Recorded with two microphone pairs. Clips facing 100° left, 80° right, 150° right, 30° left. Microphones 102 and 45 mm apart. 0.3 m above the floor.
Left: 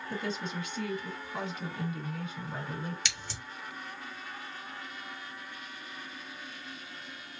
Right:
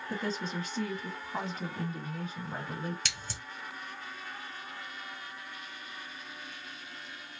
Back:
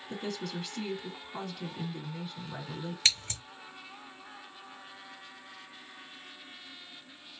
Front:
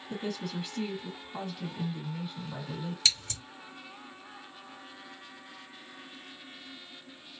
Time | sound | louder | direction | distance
0.1 | a woman speaking | right 1 dB, front 1 dB | 50° right | 1.6 m
3.0 | scissors | left 1 dB, back 1 dB | 100° right | 1.4 m